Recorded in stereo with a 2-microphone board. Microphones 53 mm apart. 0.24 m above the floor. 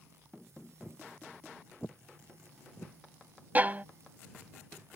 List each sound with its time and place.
0.8 s footsteps: 20° left (ahead or behind); by 3.0 s 30° left (ahead or behind)
3.5 s a violin: 35° right (ahead or behind)